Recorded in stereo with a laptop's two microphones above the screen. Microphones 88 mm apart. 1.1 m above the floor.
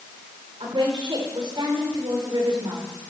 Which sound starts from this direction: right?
A woman speaking, at 0.6 s.